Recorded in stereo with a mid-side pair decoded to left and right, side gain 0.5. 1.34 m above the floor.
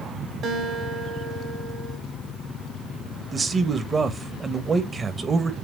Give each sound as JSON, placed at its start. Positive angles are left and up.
{"t": 0.4, "sound": "a guitar", "azimuth_deg": -65, "distance_m": 3.0}
{"t": 3.3, "sound": "a man speaking", "azimuth_deg": -30, "distance_m": 1.4}